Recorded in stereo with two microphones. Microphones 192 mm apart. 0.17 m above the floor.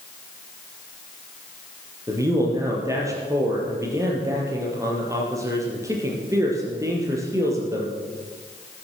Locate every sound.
2.1 s a man speaking: 15° right (ahead or behind), 4.5 m